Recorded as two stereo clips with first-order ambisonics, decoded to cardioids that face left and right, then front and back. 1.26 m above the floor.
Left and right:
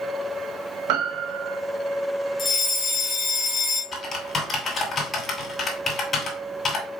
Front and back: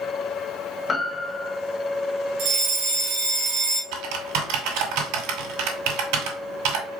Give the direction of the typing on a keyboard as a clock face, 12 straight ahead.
7 o'clock.